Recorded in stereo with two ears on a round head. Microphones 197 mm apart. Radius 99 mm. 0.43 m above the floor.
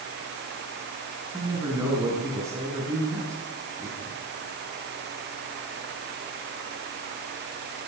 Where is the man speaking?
15° right (ahead or behind), 5.5 m.